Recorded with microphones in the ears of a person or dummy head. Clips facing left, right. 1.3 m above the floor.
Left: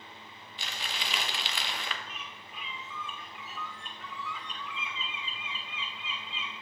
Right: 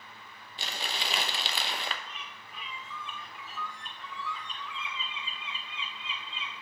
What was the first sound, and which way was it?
Crumpling, 30° right (ahead or behind).